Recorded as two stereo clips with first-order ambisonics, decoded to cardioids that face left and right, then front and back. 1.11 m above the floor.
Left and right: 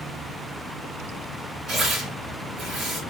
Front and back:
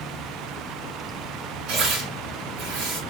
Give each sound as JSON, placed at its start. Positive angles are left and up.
{"t": 1.7, "sound": "tearing paper", "azimuth_deg": -150, "distance_m": 2.5}